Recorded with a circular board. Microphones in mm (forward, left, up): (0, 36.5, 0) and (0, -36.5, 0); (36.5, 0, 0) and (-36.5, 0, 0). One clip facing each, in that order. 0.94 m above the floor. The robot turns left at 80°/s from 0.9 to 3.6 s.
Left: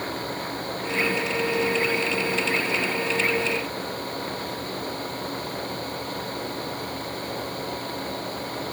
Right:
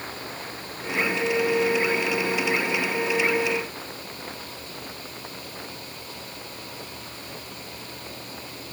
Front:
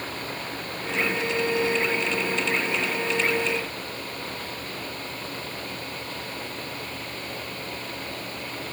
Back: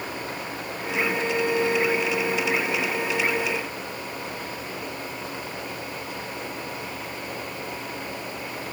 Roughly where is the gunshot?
No gunshot in this recording.